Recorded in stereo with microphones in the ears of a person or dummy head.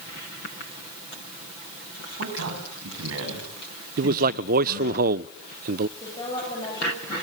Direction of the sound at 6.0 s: 35° left (ahead or behind).